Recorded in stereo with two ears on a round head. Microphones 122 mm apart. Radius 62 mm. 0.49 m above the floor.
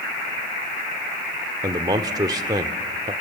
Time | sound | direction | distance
1.6 | a man speaking | 30° right (ahead or behind) | 1.0 m